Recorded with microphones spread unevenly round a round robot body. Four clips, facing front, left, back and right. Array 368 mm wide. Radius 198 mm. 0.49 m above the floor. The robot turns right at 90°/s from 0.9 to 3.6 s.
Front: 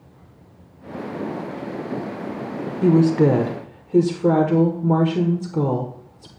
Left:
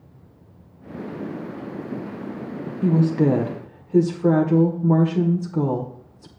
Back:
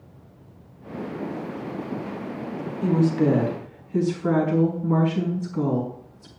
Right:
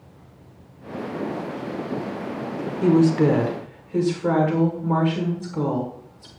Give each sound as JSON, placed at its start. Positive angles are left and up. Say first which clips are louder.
{"t": 2.8, "sound": "a woman speaking", "louder": "right 2 dB, front 5 dB", "azimuth_deg": -50, "distance_m": 1.5}